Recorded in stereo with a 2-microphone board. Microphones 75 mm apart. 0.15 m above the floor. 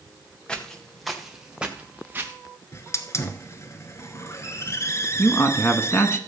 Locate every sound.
0.5 s footsteps: 10° left (ahead or behind), 2 m; by 2.3 s 30° right (ahead or behind), 1.9 m
2.7 s a hiss: 40° left (ahead or behind), 1.0 m
5.2 s a man speaking: 35° left (ahead or behind), 1.2 m